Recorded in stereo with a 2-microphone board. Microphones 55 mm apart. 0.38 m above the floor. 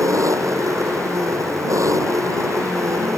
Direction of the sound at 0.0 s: 75° right (ahead or behind).